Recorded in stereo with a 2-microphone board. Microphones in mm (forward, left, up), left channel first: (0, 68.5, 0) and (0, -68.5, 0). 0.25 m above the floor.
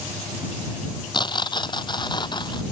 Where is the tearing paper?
35° left (ahead or behind).